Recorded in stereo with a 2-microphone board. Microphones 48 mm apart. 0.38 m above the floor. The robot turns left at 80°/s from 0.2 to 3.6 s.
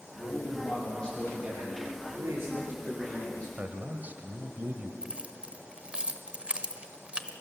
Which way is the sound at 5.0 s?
25° right (ahead or behind).